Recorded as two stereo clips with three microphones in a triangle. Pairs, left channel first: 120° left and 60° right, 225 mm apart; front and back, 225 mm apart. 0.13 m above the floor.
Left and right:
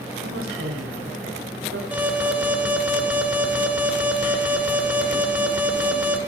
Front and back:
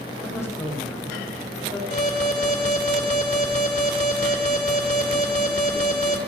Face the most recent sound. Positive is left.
turn(degrees=15)